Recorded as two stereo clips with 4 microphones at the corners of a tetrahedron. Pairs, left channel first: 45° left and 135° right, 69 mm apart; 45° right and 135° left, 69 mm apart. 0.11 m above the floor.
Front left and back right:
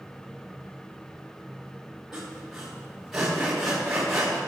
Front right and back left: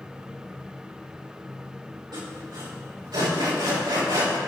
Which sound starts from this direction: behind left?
Sawing, at 2.1 s.